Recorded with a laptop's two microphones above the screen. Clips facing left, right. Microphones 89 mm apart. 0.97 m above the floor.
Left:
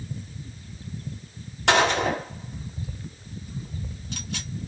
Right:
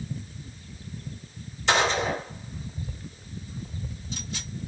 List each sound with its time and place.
1.7 s a gunshot: 60° left (ahead or behind), 1.2 m